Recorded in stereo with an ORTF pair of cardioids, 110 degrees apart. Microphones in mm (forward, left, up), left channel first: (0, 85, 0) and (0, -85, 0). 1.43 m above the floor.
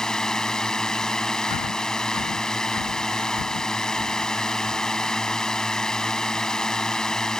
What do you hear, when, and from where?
0.0 s a drone: 5° left
1.5 s breathing: 60° left